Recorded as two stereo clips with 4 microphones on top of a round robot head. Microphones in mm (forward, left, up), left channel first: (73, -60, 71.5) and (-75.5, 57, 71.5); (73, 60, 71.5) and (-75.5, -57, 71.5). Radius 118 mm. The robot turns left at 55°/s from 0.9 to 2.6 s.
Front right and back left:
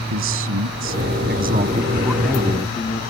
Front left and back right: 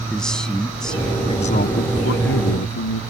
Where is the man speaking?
125° left; by 3.0 s 30° left.